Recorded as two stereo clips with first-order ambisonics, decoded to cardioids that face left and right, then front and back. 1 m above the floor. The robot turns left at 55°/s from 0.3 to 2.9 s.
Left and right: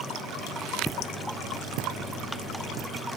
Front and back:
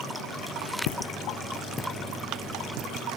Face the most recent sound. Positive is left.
turn(degrees=-165)